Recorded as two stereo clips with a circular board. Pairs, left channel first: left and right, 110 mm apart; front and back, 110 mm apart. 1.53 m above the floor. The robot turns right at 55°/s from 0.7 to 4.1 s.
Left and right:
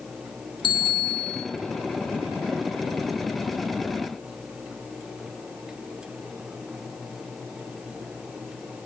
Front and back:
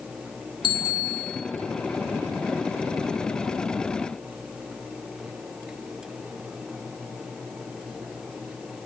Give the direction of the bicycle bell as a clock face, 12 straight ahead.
11 o'clock.